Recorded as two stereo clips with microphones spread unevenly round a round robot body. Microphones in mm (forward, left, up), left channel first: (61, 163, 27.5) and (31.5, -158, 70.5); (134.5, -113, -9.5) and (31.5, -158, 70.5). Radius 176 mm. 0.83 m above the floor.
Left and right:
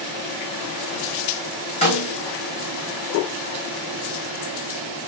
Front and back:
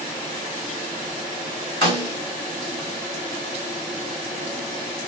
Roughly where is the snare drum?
Behind.